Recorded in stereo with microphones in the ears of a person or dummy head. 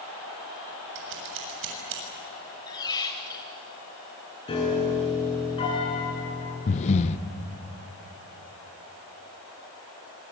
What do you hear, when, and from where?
0.9 s scissors: 70° right (ahead or behind), 7 m
2.7 s a squeak: 15° left (ahead or behind), 1.9 m
4.5 s a piano: 25° left (ahead or behind), 8.5 m
6.7 s breathing: 40° left (ahead or behind), 0.9 m